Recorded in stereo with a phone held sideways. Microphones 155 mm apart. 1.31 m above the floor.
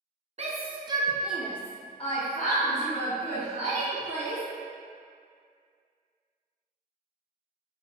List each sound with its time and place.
0.4 s a shout: 45° right (ahead or behind), 0.8 m; by 4.4 s 80° left, 1.7 m